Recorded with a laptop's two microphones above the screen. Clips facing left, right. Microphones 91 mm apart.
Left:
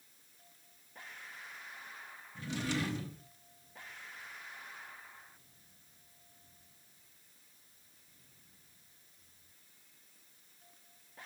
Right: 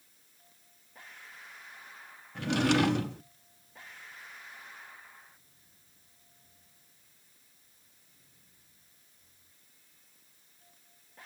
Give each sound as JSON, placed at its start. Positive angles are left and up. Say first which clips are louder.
{"t": 2.4, "sound": "a drawer", "louder": "right 11 dB", "side_deg": -70, "distance_m": 0.6}